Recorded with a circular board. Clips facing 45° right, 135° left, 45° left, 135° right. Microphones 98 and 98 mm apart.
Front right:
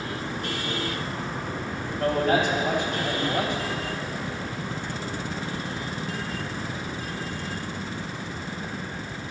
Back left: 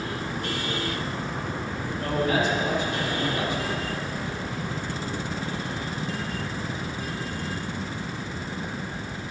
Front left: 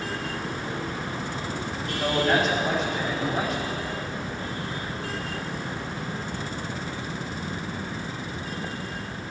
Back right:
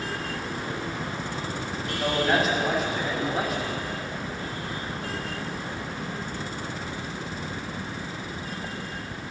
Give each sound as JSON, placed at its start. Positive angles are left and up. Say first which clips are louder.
{"t": 2.0, "sound": "a man speaking", "louder": "front right 2 dB, front left 1 dB", "azimuth_deg": -45, "distance_m": 4.0}